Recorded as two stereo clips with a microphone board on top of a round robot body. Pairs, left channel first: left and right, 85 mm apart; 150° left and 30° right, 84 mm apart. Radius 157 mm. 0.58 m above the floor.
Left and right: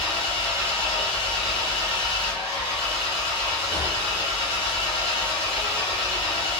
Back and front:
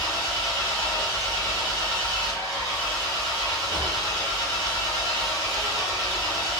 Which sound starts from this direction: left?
An engine running, at 0.0 s.